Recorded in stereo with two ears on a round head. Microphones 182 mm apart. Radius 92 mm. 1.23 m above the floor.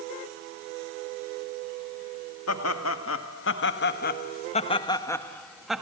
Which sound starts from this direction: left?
Laughter, at 2.5 s.